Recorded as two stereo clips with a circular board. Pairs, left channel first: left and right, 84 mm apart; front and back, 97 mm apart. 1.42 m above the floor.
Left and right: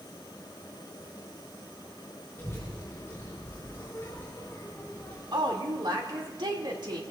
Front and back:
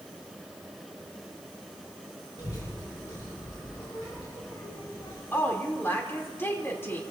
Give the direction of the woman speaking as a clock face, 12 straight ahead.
2 o'clock.